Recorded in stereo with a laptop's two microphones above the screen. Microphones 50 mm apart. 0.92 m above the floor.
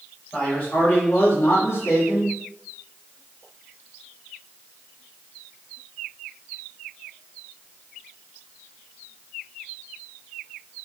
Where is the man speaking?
25° left (ahead or behind), 2 m; by 2.3 s 55° left (ahead or behind), 1.6 m.